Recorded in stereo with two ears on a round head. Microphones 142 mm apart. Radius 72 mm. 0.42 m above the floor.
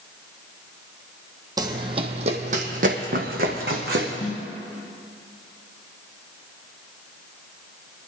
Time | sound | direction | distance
1.6 | running footsteps | 20° right (ahead or behind) | 0.8 m
4.2 | a snare drum | 45° left (ahead or behind) | 1.1 m